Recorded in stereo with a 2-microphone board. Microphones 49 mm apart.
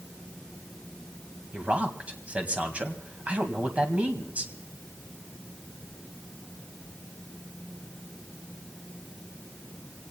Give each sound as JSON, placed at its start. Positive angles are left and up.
{"t": 1.5, "sound": "a man speaking", "side_deg": -25, "distance_m": 2.0}